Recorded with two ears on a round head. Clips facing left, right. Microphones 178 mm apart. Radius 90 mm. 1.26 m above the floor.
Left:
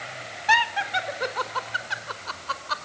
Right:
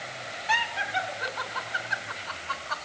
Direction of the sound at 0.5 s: 70° left (ahead or behind).